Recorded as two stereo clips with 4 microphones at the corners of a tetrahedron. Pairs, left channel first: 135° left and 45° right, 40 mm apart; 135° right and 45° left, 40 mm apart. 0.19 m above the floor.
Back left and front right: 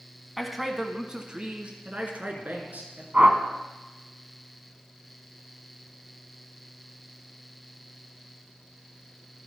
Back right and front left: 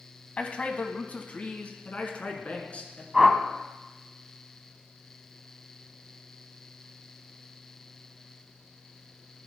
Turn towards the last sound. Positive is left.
turn(degrees=-40)